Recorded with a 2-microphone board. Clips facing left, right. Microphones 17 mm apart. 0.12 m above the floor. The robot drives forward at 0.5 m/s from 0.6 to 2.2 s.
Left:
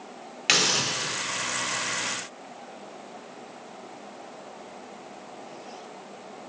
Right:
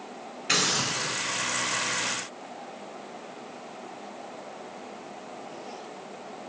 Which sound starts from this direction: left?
A hiss, at 0.5 s.